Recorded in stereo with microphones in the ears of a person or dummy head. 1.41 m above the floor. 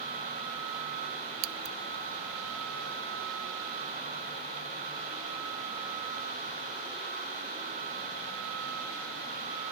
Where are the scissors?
75° right (ahead or behind), 0.6 m.